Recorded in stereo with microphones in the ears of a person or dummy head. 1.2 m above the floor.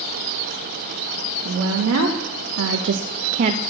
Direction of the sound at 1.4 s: 75° right (ahead or behind).